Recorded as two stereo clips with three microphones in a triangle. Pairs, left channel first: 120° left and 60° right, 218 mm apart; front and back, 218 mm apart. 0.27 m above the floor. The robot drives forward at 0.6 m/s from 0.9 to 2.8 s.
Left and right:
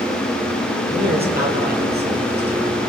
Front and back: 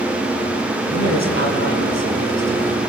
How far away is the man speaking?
About 7.5 m.